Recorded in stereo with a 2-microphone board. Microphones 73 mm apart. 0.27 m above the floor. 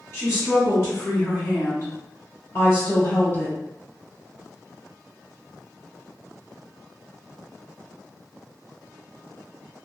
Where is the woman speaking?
35° left (ahead or behind), 1.8 m; by 3.6 s 20° left (ahead or behind), 1.4 m.